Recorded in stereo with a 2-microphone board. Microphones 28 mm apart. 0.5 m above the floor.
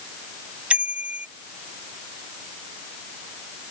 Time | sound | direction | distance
0.7 | a bicycle bell | 55° right (ahead or behind) | ?